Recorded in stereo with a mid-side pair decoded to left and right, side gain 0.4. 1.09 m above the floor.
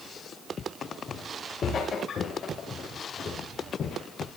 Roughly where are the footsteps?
Ahead left.